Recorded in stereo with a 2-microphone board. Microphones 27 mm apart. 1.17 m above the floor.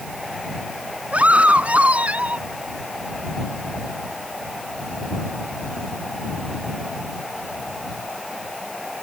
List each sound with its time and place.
1.1 s a scream: 65° right (ahead or behind)